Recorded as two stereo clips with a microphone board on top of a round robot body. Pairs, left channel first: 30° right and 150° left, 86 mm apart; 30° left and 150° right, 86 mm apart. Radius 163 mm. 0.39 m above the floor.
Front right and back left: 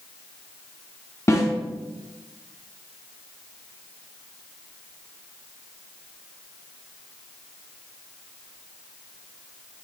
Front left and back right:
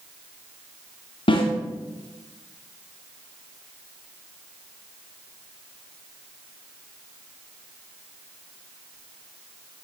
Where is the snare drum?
25° left, 2 m.